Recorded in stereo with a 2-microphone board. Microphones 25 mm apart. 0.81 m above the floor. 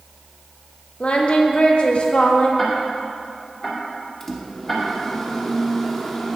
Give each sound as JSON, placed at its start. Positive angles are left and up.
{"t": 1.0, "sound": "singing", "side_deg": 50, "distance_m": 1.1}
{"t": 2.6, "sound": "ticking", "side_deg": 5, "distance_m": 2.5}
{"t": 4.2, "sound": "a microwave", "side_deg": 15, "distance_m": 1.2}